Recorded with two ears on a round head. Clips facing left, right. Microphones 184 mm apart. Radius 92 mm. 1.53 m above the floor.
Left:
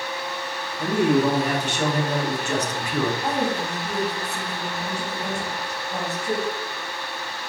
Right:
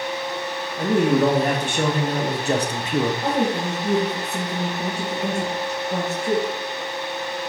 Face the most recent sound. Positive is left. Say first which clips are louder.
# right 3 dB
turn(degrees=-35)  # may be behind; listen again after turning